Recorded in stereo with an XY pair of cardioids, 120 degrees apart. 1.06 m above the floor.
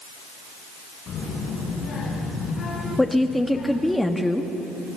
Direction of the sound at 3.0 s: 10° left.